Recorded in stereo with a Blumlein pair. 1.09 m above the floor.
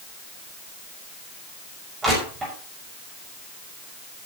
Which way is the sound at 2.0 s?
20° right.